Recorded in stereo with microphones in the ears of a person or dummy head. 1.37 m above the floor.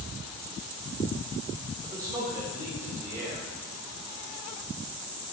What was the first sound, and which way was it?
A man speaking, 20° right (ahead or behind).